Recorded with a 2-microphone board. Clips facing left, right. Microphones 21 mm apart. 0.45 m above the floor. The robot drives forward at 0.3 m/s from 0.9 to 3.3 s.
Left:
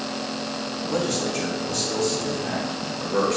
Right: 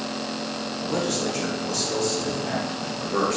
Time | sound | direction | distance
0.8 | a man speaking | 15° right (ahead or behind) | 1.2 m